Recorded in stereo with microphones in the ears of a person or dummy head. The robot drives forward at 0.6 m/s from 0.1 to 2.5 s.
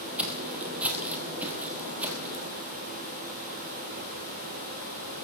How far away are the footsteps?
About 3 m.